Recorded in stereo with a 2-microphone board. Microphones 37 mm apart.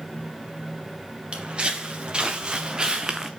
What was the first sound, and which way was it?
Footsteps, 30° right (ahead or behind).